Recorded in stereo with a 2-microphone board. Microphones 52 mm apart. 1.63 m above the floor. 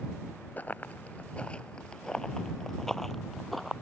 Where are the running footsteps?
35° left (ahead or behind); by 3.7 s centre (ahead or behind).